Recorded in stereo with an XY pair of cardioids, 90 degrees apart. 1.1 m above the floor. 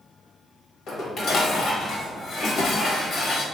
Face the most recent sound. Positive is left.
turn(degrees=70)